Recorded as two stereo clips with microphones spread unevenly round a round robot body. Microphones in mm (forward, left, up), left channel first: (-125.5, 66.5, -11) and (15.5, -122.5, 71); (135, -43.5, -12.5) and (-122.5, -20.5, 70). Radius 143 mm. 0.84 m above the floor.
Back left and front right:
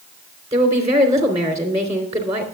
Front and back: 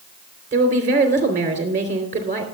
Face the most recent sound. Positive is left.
turn(degrees=-120)